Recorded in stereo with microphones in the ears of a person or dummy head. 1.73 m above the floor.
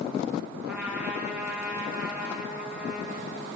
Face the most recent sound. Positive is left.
turn(degrees=-5)  # may be behind; listen again after turning